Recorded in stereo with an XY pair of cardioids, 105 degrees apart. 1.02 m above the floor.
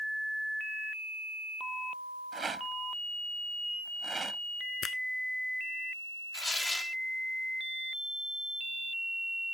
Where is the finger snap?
40° left.